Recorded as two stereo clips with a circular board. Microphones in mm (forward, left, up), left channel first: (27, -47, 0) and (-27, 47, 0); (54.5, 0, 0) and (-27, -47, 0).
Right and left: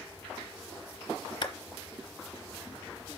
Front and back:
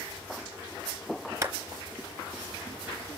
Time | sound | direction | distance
1.4 | a clap | 95° right | 1.4 m